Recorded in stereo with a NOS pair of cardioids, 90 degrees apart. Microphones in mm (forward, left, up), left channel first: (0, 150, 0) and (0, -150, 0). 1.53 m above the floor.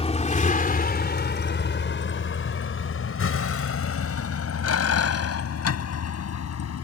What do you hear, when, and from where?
0.0 s a vehicle: 20° left; by 6.8 s 55° left